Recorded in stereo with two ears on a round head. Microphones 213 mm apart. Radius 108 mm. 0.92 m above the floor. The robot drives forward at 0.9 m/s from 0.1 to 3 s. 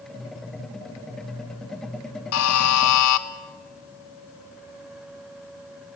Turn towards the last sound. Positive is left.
turn(degrees=80)